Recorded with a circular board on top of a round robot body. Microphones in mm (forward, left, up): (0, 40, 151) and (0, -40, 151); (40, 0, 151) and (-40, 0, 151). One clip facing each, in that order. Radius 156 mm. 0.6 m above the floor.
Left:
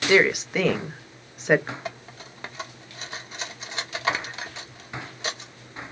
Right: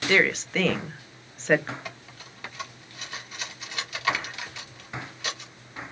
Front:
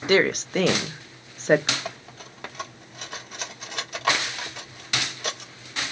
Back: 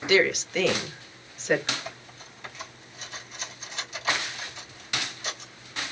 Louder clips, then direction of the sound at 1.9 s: Left 5 dB, front 5 dB; 30° left.